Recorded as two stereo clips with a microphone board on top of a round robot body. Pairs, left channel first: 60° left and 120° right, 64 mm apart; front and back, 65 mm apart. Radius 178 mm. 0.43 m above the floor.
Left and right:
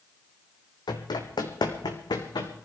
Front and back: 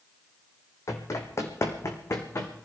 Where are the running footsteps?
45° left, 1.3 m; by 2.5 s 50° left, 2.5 m.